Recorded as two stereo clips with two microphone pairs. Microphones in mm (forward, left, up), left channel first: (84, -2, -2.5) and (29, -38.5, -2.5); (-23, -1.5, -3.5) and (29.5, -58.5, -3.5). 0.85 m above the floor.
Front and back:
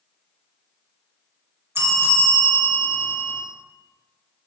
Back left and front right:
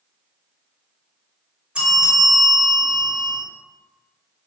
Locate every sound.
1.8 s a bell: 115° right, 0.7 m